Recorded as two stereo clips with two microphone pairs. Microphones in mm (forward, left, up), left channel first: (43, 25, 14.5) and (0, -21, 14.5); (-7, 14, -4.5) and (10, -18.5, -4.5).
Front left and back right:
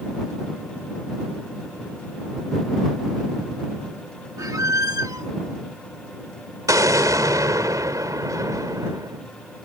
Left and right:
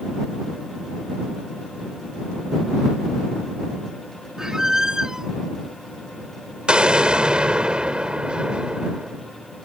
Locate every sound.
4.4 s a squeak: 135° right
6.7 s an explosion: 125° right